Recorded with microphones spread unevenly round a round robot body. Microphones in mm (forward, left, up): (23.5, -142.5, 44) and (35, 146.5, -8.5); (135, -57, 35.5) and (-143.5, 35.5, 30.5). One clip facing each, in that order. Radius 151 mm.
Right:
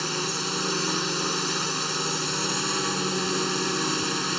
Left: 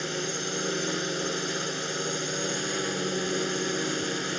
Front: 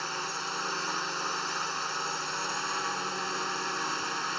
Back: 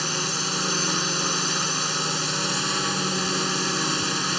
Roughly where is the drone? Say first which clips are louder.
Right 1 dB, back 10 dB; behind.